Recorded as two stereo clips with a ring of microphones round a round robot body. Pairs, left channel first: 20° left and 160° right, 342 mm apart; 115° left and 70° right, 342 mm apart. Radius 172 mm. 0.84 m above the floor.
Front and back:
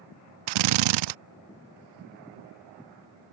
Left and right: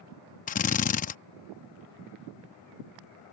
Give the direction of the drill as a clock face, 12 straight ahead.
6 o'clock.